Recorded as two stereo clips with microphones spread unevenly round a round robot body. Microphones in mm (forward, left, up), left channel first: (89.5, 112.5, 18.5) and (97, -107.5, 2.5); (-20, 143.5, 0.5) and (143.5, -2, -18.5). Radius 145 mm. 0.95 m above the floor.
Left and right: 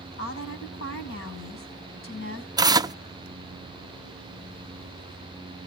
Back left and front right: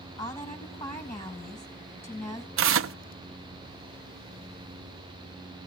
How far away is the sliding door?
No sliding door in this recording.